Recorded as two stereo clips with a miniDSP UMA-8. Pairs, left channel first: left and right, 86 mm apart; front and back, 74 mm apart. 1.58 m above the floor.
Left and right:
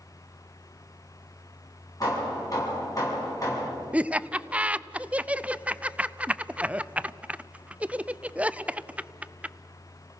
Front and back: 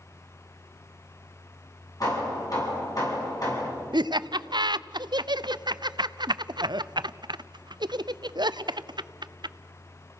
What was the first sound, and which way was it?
Hammering, 40° left.